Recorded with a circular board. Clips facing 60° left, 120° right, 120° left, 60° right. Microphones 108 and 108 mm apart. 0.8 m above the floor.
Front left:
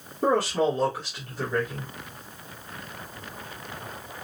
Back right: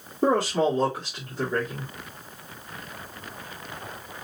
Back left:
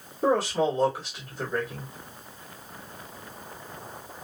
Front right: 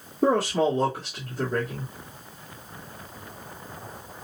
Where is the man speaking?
50° right, 2.5 m.